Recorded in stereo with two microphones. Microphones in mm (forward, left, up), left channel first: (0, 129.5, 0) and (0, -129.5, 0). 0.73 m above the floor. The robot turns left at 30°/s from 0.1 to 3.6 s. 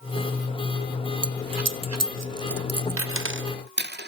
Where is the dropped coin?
65° right (ahead or behind), 0.5 m; by 4.1 s 40° right (ahead or behind), 0.5 m.